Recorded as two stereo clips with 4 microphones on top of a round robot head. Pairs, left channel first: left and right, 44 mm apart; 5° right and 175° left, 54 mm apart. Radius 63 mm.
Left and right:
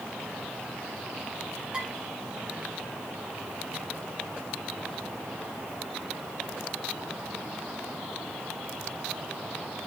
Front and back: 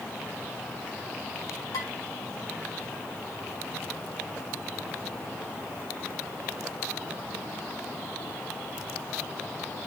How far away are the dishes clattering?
About 6 m.